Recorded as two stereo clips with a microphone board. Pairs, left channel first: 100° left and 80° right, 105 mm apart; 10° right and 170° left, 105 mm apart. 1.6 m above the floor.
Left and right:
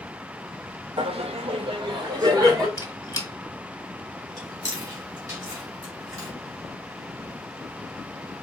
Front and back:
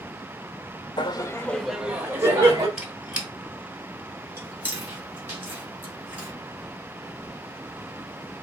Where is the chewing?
125° right, 2 m.